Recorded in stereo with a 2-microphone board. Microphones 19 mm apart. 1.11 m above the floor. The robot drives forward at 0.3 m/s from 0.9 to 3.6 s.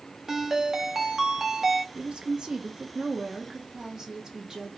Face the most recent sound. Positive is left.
turn(degrees=-30)  # may be behind; listen again after turning